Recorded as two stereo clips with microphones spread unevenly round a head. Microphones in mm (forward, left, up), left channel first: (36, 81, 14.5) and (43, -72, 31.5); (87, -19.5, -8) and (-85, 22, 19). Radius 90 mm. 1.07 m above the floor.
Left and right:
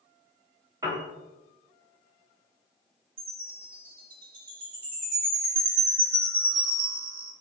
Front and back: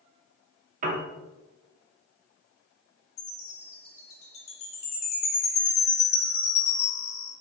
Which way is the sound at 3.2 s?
70° right.